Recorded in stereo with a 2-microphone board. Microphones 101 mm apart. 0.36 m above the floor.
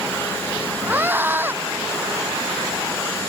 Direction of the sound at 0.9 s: 20° right (ahead or behind).